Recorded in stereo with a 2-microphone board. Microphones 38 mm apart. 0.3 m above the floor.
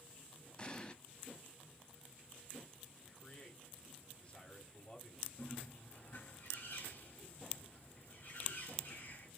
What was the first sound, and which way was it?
An explosion, 30° left (ahead or behind).